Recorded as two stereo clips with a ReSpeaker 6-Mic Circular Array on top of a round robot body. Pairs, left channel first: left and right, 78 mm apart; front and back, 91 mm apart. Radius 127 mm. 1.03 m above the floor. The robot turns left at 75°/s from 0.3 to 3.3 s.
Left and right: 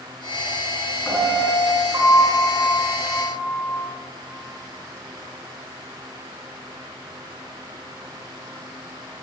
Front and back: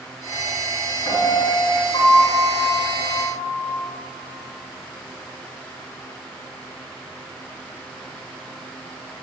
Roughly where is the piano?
Ahead.